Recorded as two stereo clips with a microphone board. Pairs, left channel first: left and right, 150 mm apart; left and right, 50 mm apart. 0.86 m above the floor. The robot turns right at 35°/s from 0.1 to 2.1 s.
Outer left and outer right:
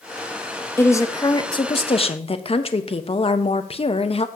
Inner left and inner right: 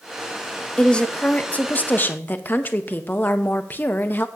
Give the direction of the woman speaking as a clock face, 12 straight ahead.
11 o'clock.